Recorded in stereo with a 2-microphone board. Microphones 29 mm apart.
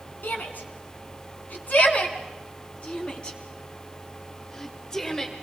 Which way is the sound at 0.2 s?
75° left (ahead or behind).